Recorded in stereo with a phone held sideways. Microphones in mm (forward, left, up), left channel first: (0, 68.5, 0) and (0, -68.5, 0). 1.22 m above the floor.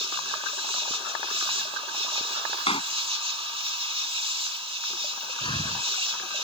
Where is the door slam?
45° left (ahead or behind).